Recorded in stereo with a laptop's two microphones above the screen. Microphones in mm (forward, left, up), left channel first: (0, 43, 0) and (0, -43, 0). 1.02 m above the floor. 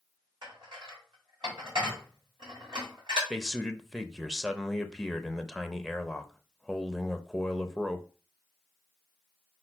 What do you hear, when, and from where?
0.4 s dishes clattering: 65° right (ahead or behind), 2.5 m
3.3 s a man speaking: 5° left (ahead or behind), 0.6 m